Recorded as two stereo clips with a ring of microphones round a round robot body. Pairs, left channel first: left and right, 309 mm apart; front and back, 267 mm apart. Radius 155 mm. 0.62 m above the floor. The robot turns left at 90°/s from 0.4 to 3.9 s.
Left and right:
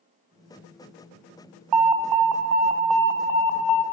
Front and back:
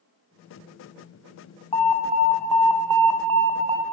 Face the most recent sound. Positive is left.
turn(degrees=90)